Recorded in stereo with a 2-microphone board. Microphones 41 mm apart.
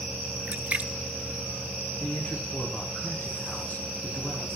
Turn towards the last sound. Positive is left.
turn(degrees=40)  # may be behind; listen again after turning